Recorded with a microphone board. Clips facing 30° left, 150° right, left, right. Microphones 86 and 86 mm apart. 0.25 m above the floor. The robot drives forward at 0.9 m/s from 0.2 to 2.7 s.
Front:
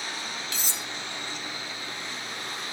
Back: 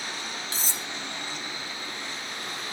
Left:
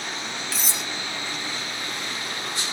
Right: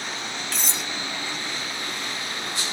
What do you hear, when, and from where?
0.5 s cutlery clinking: 175° left, 0.7 m